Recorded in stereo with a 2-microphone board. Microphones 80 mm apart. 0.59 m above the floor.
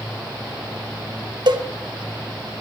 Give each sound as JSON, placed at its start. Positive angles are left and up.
{"t": 1.5, "sound": "a cowbell", "side_deg": -65, "distance_m": 0.6}